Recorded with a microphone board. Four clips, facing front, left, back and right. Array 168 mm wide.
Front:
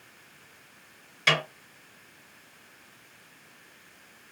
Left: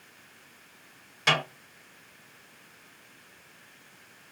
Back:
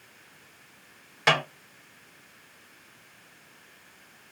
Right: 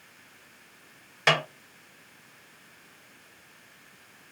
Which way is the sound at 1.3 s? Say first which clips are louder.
Right 2 dB, back 3 dB; 145° right.